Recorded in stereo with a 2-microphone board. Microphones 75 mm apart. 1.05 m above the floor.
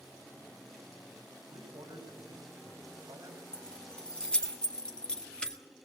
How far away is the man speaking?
About 4 m.